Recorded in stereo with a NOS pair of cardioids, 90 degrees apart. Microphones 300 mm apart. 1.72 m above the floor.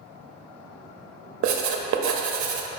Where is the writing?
65° right, 0.6 m.